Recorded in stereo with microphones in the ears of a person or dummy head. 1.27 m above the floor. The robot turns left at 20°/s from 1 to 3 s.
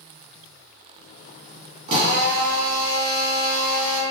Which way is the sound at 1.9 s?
45° right (ahead or behind).